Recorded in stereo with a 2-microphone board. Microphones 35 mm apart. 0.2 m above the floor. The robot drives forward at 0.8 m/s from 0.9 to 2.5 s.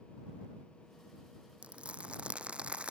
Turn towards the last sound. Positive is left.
turn(degrees=-35)  # may be behind; listen again after turning